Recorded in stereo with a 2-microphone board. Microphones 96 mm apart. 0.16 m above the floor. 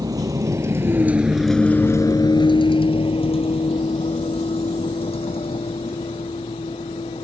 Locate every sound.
0.0 s a vehicle: 40° right (ahead or behind); by 7.2 s 75° left (ahead or behind)